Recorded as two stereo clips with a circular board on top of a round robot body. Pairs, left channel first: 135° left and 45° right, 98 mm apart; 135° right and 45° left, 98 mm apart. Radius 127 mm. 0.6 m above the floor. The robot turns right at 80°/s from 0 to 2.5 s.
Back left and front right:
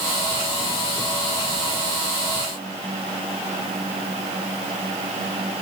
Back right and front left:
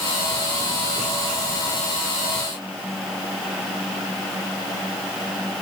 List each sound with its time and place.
Only background noise.